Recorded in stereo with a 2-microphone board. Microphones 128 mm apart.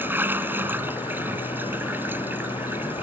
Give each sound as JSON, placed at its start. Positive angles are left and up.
{"t": 0.0, "sound": "running water", "side_deg": -15}